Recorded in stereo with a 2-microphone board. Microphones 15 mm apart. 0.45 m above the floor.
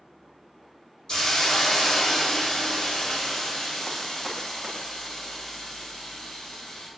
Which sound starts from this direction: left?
A hiss, at 1.1 s.